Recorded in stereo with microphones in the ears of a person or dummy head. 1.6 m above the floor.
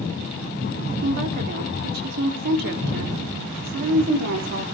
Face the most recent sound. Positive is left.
turn(degrees=-55)  # may be behind; listen again after turning